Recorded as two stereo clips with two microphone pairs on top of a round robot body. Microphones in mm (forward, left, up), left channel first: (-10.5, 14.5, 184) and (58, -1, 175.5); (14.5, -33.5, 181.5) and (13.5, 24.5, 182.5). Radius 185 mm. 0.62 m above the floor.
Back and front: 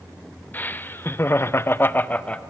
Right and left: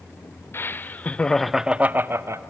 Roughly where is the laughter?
Behind right.